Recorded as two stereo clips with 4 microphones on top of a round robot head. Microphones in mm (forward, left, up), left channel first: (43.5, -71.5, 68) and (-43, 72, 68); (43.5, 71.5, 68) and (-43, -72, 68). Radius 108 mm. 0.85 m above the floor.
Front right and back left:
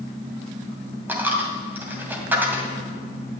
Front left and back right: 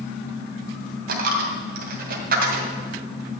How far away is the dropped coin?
About 2 m.